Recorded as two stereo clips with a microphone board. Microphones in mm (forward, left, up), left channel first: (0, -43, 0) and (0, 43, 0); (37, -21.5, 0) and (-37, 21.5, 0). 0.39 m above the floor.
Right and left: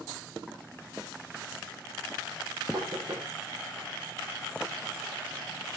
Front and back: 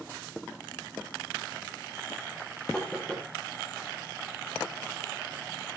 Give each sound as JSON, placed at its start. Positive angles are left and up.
{"t": 2.7, "sound": "knocking", "azimuth_deg": 50, "distance_m": 6.0}